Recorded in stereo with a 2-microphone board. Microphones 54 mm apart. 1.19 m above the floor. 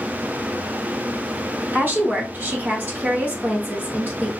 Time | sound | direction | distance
1.7 | a woman speaking | 40° right (ahead or behind) | 1.5 m